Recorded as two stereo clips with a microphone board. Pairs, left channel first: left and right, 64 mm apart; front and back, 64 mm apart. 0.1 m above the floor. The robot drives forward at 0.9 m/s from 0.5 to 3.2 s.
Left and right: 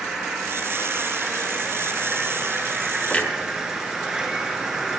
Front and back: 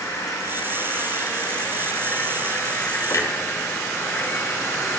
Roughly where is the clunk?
Ahead left.